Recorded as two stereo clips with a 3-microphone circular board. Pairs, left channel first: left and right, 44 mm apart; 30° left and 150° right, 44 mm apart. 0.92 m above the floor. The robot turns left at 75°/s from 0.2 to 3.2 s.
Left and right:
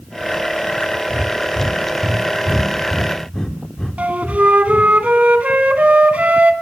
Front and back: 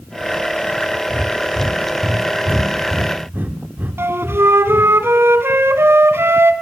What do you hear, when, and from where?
1.1 s breathing: 35° right, 3 m; by 4.9 s 170° left, 3 m
4.0 s a flute: 140° right, 2.5 m